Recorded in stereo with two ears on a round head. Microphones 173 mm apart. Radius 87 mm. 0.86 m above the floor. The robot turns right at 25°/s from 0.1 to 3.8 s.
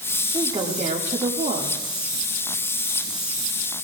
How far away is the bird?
I don't hear a bird.